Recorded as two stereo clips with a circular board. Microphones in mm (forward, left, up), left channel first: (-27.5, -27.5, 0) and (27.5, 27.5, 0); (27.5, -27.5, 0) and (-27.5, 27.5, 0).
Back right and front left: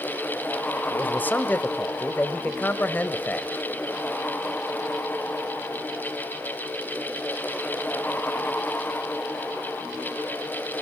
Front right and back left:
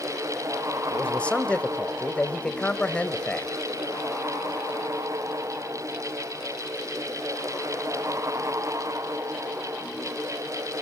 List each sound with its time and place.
0.9 s a man speaking: 100° right, 1.1 m